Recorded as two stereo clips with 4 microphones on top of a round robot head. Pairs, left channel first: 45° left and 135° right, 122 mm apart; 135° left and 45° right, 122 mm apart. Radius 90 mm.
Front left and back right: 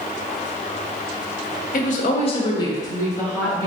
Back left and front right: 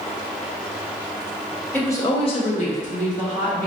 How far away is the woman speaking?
About 0.6 m.